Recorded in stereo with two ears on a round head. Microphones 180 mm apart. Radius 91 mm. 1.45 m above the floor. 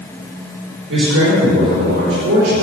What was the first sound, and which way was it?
A man speaking, 60° right (ahead or behind).